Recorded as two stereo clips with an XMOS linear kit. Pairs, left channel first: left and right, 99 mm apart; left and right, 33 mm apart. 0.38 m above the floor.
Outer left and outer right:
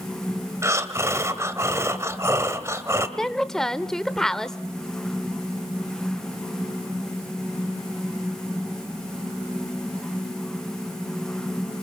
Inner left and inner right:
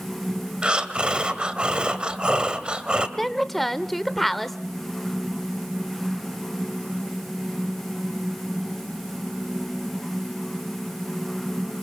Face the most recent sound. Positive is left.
turn(degrees=5)  # may be behind; listen again after turning